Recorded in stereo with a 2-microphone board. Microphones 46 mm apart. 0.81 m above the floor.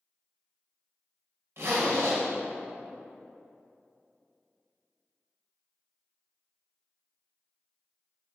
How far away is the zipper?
About 2 m.